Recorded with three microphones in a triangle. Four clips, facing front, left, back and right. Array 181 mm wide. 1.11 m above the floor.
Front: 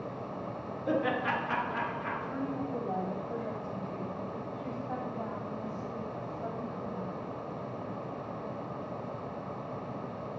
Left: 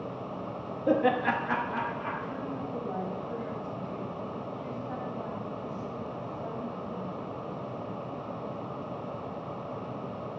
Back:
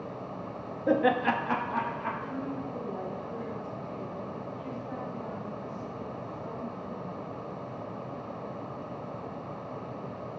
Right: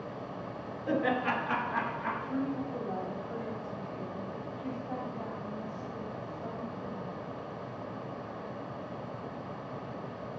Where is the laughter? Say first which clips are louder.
Left 4 dB, back 5 dB; 125° left, 1.3 m; by 2.1 s 165° right, 2 m.